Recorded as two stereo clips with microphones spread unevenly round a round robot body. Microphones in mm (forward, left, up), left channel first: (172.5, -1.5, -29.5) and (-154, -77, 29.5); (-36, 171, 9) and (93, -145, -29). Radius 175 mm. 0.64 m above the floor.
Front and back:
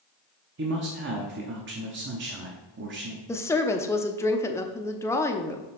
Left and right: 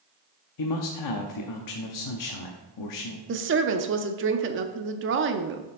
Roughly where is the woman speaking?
Ahead right.